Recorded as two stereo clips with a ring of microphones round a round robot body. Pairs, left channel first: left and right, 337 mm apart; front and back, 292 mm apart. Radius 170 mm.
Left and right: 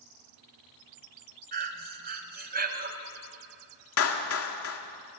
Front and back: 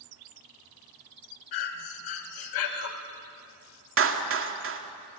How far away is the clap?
About 2 m.